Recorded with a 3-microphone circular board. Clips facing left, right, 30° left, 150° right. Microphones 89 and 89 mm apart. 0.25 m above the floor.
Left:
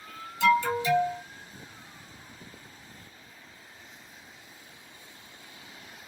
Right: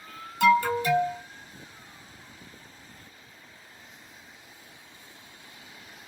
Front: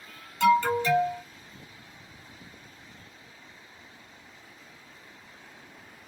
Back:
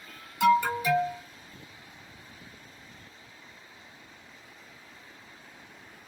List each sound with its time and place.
0.4 s an alarm: 70° right, 1.5 m